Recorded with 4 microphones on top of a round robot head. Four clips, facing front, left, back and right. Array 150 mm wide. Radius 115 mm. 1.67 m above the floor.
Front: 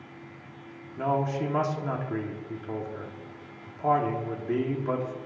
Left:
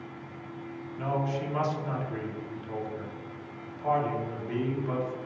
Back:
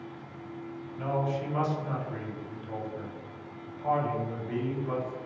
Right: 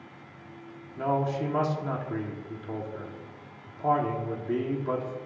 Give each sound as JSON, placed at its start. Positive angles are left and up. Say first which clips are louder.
{"t": 1.0, "sound": "a man speaking", "louder": "right 3 dB, front 4 dB", "azimuth_deg": -35, "distance_m": 1.8}